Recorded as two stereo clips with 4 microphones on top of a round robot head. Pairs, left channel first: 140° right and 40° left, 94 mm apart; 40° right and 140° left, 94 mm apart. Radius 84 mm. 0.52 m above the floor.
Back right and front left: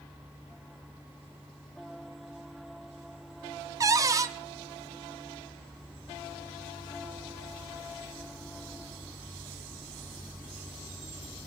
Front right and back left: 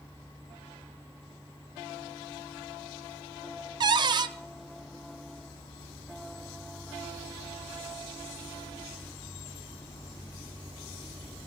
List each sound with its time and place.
3.8 s a cupboard door: 95° left, 0.7 m